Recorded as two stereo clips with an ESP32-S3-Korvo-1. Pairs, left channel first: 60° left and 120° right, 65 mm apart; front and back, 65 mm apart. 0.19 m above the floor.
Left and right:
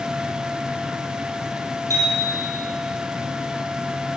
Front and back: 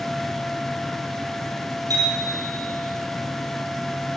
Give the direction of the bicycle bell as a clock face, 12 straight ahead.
5 o'clock.